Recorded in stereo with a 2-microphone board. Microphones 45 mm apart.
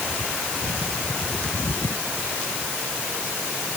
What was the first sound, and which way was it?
Only background noise.